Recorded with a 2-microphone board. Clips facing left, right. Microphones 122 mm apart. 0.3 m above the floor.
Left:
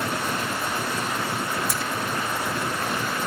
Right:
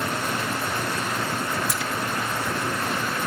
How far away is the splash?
About 2.5 m.